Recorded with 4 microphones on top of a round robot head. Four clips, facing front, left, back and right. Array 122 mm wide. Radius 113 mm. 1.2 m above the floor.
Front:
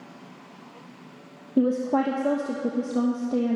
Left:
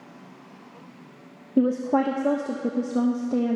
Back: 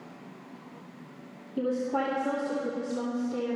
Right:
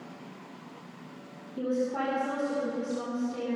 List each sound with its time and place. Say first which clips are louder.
1.6 s a woman speaking: left 8 dB, front 6 dB; 55° left, 1.1 m